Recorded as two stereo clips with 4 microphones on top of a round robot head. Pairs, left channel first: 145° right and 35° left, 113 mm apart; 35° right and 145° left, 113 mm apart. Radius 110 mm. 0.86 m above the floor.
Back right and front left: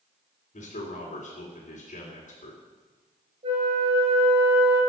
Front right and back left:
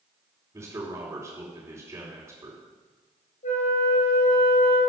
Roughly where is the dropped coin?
I don't hear a dropped coin.